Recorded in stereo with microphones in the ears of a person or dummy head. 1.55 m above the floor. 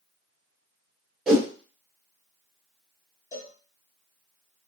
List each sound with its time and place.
1.3 s a whoosh: 5° right (ahead or behind), 1.0 m
3.3 s a cowbell: 15° left (ahead or behind), 1.3 m